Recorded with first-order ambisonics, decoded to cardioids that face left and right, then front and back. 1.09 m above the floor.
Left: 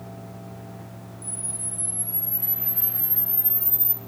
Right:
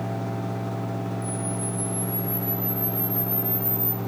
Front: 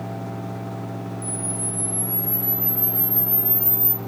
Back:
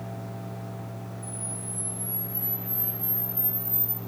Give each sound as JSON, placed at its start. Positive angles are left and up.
{"t": 1.2, "sound": "a camera shutter", "azimuth_deg": 15, "distance_m": 1.8}